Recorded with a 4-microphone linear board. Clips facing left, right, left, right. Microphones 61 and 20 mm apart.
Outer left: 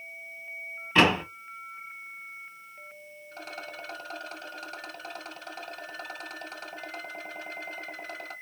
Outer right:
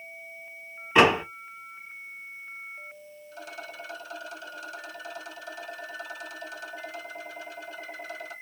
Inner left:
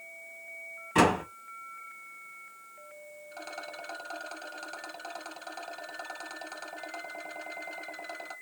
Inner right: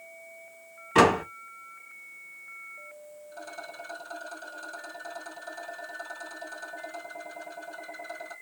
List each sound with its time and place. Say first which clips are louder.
0.9 s a door slam: outer right 3 dB, inner right 4 dB; 15° right (ahead or behind), 1.0 m
3.3 s a rattle: even, even; 50° left (ahead or behind), 1.3 m